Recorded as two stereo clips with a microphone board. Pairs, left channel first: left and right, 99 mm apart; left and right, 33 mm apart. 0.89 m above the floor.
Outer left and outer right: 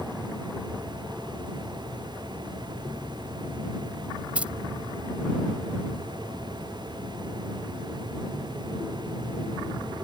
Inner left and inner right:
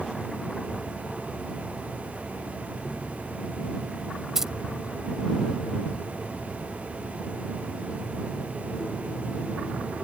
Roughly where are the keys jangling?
Centre.